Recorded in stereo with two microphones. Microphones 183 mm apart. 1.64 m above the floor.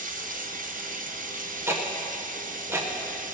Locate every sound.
0.0 s running water: 50° right (ahead or behind), 0.8 m
1.7 s ticking: 15° right (ahead or behind), 1.2 m